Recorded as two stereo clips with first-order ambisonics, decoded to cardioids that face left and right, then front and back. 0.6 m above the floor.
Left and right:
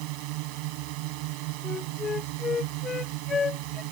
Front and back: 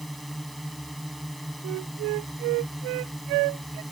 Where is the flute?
165° left.